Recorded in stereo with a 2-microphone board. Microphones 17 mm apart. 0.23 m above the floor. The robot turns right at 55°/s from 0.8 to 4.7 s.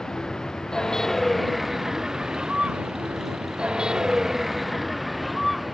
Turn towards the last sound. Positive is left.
turn(degrees=0)